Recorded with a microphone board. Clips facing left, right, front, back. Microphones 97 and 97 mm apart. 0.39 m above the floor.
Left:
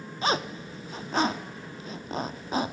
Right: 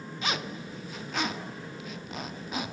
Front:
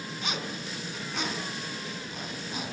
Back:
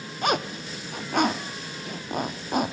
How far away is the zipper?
About 0.6 m.